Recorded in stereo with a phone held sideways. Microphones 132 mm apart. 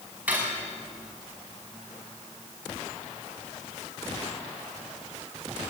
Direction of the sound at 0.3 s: 10° right (ahead or behind).